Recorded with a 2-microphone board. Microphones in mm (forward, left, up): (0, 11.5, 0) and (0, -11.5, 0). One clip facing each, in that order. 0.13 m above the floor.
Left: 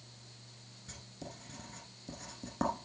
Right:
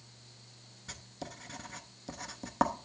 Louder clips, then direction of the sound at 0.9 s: Right 4 dB; 40° right (ahead or behind).